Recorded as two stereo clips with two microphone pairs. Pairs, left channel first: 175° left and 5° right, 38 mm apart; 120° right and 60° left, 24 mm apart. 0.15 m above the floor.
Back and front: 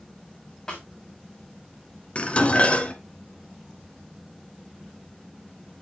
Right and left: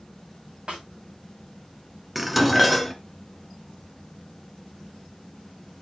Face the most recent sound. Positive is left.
turn(degrees=145)